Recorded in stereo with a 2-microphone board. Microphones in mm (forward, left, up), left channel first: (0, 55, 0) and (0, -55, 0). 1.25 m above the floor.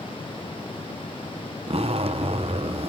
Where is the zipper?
55° right (ahead or behind), 0.9 m.